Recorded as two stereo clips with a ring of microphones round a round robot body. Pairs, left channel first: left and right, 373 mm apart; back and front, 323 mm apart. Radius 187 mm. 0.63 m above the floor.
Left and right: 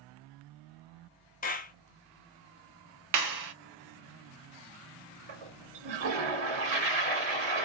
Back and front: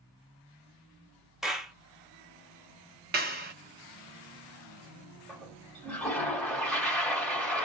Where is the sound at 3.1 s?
60° right, 0.5 m.